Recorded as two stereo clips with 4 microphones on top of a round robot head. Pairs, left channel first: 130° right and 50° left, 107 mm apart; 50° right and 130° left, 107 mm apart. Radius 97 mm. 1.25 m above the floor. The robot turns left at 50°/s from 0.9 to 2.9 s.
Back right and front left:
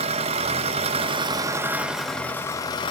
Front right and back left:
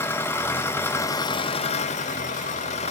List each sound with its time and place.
0.0 s an engine running: 20° left, 0.9 m; by 2.9 s 80° right, 0.9 m